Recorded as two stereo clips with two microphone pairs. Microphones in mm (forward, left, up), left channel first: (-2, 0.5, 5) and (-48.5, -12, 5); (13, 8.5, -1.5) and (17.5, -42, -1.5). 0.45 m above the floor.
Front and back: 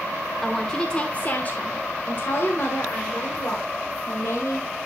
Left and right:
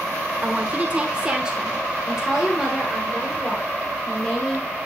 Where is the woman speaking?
65° right, 1.1 m; by 4.7 s 15° left, 2.5 m.